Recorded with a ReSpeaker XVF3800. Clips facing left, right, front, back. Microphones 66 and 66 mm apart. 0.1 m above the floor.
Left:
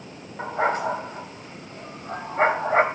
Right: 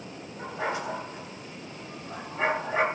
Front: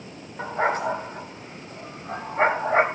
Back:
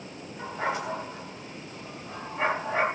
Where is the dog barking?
50° left, 3 m.